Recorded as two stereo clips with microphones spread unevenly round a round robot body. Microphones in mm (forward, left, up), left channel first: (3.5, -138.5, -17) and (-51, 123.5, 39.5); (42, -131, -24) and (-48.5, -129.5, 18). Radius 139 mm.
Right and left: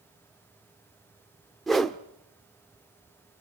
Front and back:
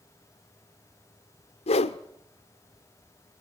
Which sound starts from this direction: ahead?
A whoosh, at 1.7 s.